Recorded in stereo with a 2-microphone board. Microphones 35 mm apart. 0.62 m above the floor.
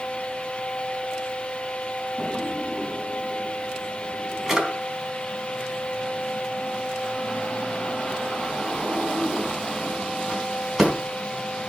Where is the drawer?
10° right (ahead or behind), 3.5 m.